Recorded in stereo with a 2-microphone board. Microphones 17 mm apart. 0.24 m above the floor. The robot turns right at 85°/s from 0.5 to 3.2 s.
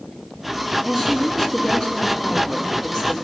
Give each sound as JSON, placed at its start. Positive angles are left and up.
{"t": 0.8, "sound": "a woman speaking", "azimuth_deg": -20, "distance_m": 2.5}